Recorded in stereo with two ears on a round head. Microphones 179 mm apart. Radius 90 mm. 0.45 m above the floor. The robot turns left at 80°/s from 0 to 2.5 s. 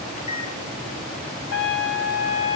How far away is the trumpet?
About 0.6 m.